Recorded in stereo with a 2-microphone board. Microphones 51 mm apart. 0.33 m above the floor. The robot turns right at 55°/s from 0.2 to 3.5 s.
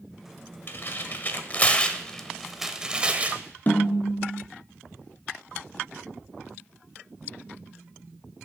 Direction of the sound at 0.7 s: 40° left (ahead or behind).